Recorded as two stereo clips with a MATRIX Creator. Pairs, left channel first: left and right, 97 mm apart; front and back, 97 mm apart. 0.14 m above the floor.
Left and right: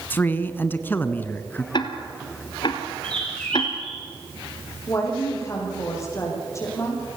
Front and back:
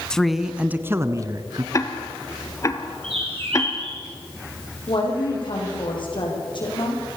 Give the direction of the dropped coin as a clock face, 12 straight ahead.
I don't hear a dropped coin.